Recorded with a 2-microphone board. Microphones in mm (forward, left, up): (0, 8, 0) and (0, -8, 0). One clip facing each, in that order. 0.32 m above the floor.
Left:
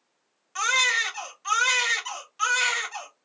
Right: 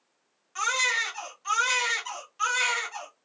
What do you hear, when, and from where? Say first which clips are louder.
0.6 s a baby crying: left 3 dB; 25° left (ahead or behind), 1.0 m